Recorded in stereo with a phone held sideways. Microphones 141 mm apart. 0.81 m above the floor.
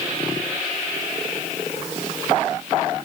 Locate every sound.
Only background noise.